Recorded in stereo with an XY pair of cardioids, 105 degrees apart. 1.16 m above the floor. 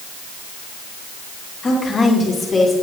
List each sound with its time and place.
1.6 s a woman speaking: 40° left, 2.5 m; by 2.7 s 25° left, 3 m